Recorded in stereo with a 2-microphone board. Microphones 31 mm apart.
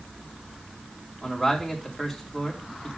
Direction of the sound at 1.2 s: Centre (ahead or behind).